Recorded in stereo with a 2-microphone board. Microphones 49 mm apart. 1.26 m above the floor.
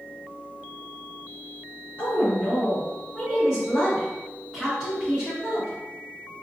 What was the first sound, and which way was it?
A woman speaking, 40° left (ahead or behind).